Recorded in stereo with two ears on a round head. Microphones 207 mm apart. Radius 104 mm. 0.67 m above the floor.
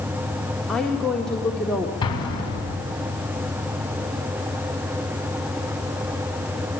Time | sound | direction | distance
0.7 | a woman speaking | 5° left (ahead or behind) | 1.8 m
2.0 | an explosion | 20° left (ahead or behind) | 4 m